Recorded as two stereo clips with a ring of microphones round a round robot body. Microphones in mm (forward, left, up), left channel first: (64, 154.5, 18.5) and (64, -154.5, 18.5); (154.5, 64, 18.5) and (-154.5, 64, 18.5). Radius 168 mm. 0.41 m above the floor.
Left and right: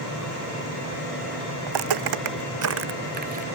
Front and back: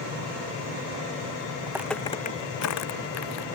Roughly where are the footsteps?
Right.